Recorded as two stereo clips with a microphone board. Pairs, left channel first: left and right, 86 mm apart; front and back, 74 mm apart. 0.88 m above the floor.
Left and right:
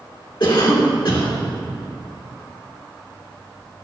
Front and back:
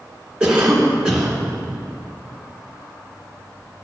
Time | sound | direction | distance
0.4 | a cough | 105° left | 2.5 m